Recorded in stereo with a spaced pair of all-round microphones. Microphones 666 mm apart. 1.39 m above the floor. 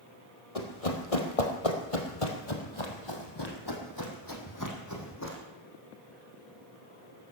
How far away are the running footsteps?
About 2.5 m.